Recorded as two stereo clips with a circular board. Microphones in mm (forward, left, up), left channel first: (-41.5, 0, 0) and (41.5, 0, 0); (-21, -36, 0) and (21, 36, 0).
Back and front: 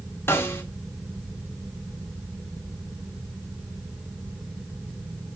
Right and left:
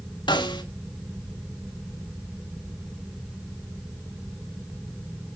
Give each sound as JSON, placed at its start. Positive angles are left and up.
{"t": 0.3, "sound": "a snare drum", "azimuth_deg": -120, "distance_m": 1.6}